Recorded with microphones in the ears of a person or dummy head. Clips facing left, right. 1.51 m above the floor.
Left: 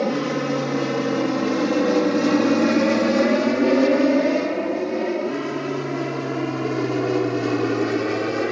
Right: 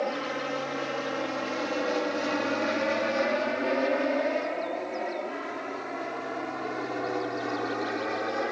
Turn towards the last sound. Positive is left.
turn(degrees=50)  # may be behind; listen again after turning